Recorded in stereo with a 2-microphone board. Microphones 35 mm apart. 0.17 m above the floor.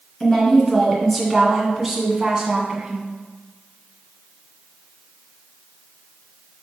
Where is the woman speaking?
10° left (ahead or behind), 2 m; by 3.1 s 25° right (ahead or behind), 1.7 m.